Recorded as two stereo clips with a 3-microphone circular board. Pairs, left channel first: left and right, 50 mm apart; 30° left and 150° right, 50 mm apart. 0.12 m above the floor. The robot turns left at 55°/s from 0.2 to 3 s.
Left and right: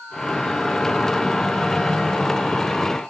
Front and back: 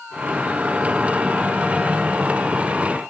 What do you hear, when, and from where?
Only background noise.